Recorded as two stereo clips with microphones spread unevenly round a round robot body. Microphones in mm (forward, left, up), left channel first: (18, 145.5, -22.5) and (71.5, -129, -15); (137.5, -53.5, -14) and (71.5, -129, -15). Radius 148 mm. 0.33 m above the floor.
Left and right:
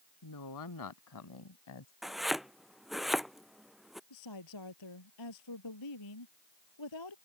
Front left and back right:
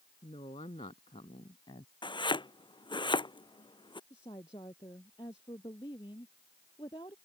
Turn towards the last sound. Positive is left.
turn(degrees=120)